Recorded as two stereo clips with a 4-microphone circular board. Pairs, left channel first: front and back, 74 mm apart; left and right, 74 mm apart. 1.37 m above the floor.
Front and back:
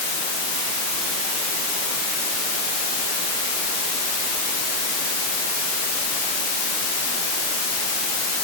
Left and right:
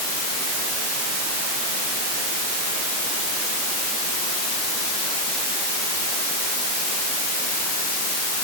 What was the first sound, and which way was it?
Only background noise.